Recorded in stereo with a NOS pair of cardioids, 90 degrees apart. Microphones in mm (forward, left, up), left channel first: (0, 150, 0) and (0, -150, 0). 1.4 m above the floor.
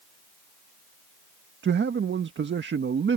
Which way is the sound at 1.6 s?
40° right.